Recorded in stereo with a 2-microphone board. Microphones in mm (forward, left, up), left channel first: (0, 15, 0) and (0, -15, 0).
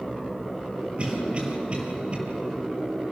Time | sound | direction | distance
1.0 | a cough | 40° right (ahead or behind) | 6.5 m